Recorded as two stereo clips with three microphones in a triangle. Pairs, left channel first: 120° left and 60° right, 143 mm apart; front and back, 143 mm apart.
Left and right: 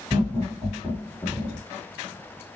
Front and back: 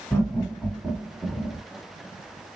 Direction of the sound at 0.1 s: 55° right.